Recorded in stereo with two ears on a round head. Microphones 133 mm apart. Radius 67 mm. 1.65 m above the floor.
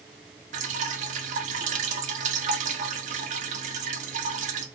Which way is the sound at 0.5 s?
55° right (ahead or behind).